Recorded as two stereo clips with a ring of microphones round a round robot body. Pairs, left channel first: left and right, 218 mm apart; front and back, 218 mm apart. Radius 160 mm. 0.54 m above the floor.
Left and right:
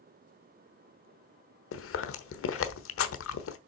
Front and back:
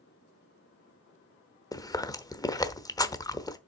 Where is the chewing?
75° left, 1.1 m.